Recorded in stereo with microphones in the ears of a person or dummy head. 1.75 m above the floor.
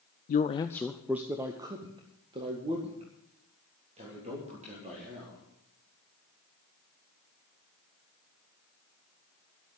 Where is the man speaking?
45° left (ahead or behind), 0.5 m; by 5.4 s 35° right (ahead or behind), 4 m.